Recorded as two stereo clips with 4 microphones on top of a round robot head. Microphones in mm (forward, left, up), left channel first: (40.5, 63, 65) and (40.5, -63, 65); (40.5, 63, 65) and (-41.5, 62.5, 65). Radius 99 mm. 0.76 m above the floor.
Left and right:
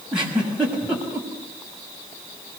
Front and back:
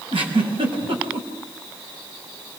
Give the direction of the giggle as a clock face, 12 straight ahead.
6 o'clock.